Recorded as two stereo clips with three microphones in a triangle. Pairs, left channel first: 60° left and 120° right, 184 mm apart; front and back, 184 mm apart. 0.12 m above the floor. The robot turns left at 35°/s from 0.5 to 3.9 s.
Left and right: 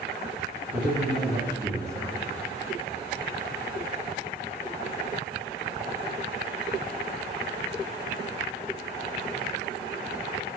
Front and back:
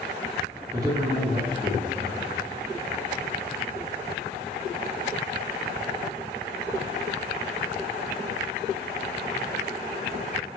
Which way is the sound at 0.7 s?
130° right.